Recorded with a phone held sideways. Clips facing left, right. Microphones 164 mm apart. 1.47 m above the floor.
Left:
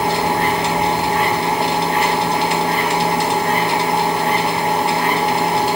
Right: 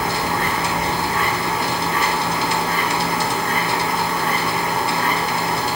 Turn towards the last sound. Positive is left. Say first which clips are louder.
# left 5 dB
turn(degrees=80)